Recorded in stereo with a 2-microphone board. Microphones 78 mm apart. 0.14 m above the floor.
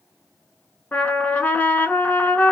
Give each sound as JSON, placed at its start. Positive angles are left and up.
{"t": 0.9, "sound": "a trumpet", "side_deg": 20, "distance_m": 0.7}